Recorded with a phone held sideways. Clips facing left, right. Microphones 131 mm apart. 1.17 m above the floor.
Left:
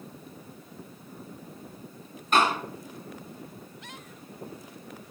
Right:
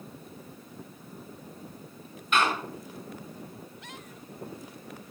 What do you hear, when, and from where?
2.3 s a door slam: 40° left (ahead or behind), 8.5 m